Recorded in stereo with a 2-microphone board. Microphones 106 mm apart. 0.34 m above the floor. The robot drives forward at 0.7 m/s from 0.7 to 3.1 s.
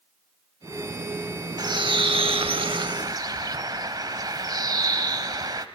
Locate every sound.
1.6 s a bird: 40° right (ahead or behind), 0.8 m